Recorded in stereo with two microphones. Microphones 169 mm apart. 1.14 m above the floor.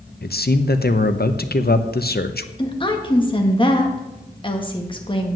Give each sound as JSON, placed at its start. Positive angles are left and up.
{"t": 0.2, "sound": "a man speaking", "side_deg": 70, "distance_m": 0.9}
{"t": 2.6, "sound": "a woman speaking", "side_deg": 30, "distance_m": 1.8}